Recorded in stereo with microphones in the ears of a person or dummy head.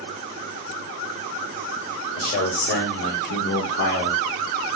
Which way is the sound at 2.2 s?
55° left (ahead or behind).